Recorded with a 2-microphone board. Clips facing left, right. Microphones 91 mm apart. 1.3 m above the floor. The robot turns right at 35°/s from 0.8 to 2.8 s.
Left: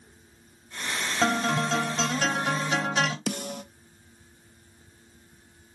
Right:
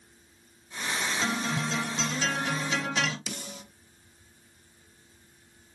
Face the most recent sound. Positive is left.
turn(degrees=55)  # may be behind; listen again after turning